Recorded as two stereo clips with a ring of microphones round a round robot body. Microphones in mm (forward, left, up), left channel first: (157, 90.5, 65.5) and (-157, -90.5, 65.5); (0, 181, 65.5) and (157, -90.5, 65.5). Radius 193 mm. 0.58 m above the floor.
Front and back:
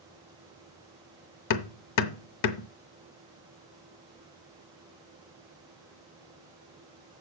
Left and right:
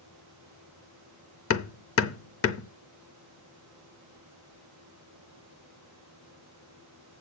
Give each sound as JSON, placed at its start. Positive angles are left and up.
{"t": 1.5, "sound": "hammering", "azimuth_deg": 70, "distance_m": 0.8}